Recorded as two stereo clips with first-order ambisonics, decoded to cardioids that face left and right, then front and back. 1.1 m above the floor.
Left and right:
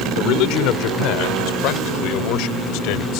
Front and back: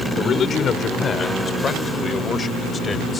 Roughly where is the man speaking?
Ahead left.